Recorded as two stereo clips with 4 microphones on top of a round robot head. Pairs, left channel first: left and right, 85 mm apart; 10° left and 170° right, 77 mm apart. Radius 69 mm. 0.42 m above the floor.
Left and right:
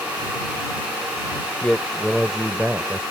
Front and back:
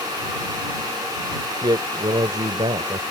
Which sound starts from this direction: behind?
A man speaking, at 1.6 s.